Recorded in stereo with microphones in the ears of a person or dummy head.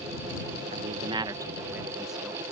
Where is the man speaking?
40° right (ahead or behind); by 2.4 s 5° left (ahead or behind).